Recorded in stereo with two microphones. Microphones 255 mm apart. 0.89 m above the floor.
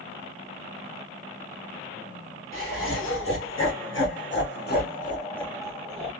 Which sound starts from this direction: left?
Laughter, at 2.5 s.